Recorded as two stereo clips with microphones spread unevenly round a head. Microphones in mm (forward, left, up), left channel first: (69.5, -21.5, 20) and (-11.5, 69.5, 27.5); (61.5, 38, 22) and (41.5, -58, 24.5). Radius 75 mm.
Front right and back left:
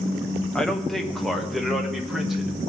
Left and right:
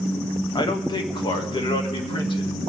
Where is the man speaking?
35° left, 1.2 m; by 2.6 s 45° left, 2 m.